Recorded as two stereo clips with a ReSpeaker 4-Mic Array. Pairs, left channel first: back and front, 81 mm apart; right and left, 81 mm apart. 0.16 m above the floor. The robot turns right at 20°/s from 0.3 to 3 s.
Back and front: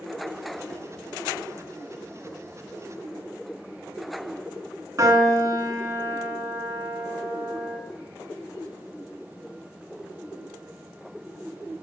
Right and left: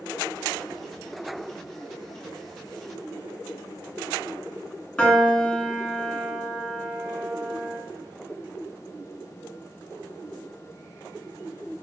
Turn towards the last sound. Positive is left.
turn(degrees=-20)